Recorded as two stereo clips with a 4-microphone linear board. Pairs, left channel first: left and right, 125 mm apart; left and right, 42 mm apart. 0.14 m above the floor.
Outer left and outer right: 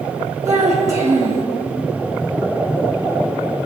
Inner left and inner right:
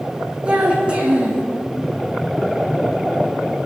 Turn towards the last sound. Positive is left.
turn(degrees=-25)  # may be behind; listen again after turning